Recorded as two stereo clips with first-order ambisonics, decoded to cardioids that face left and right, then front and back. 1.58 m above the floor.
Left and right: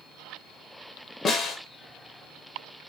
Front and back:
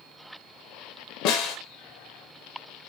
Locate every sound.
1.2 s a snare drum: 30° left, 0.8 m